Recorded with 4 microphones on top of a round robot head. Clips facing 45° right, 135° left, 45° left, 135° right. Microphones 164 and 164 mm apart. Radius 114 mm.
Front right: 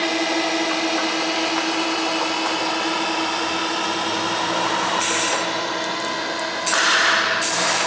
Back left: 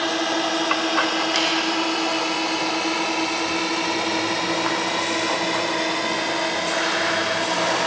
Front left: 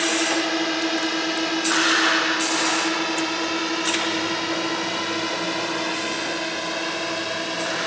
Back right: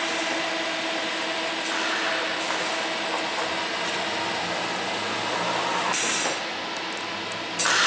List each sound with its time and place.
0.0 s a drone: 25° left; by 7.9 s 75° left